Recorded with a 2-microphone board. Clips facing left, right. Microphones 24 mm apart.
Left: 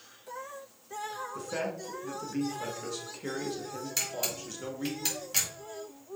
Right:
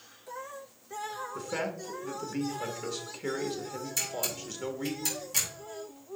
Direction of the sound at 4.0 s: 35° left (ahead or behind).